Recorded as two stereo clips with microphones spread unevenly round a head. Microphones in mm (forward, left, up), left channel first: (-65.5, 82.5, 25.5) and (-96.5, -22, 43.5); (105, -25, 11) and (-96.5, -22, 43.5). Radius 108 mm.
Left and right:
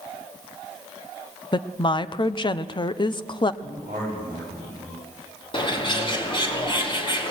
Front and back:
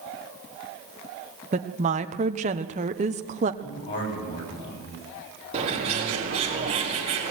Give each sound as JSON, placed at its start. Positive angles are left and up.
{"t": 1.5, "sound": "a woman speaking", "azimuth_deg": 120, "distance_m": 1.2}
{"t": 3.6, "sound": "a man speaking", "azimuth_deg": -35, "distance_m": 9.0}
{"t": 5.5, "sound": "a bird", "azimuth_deg": 115, "distance_m": 4.5}